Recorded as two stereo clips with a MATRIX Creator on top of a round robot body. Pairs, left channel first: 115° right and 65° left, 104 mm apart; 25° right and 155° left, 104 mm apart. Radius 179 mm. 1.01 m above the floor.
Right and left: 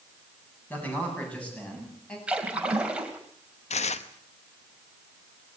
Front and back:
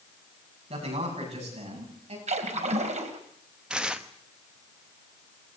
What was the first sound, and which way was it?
A man speaking, 170° left.